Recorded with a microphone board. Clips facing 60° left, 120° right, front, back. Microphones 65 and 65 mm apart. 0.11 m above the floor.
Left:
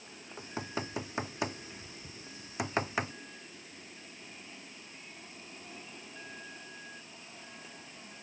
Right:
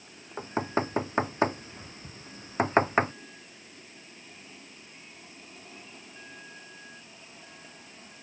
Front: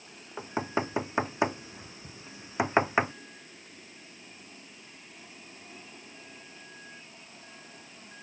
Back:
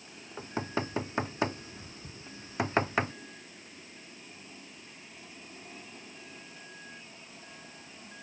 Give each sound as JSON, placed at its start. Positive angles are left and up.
{"t": 0.4, "sound": "knocking", "azimuth_deg": -70}